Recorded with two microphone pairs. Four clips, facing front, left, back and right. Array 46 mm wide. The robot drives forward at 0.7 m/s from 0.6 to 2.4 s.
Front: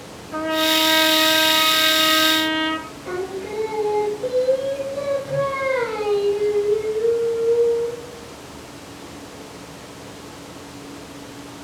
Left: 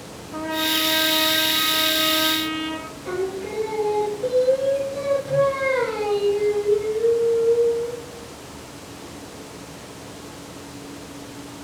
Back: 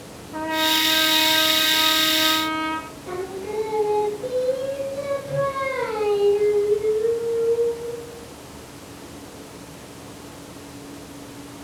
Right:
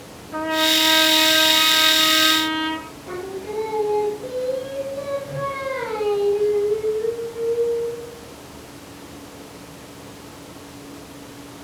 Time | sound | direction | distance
0.3 | a trumpet | 10° right | 7 m
3.0 | singing | 50° left | 8 m